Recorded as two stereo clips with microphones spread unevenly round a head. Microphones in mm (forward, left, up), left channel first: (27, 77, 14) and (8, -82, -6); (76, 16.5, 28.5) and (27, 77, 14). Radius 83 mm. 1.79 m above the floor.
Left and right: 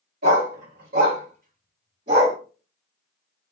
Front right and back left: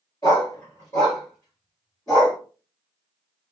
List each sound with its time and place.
0.2 s a dog barking: 90° right, 1.9 m; by 2.4 s 140° right, 1.7 m